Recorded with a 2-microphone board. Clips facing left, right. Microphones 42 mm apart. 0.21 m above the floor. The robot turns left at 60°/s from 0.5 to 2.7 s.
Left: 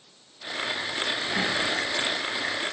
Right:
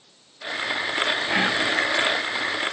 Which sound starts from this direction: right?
Whispering, at 1.3 s.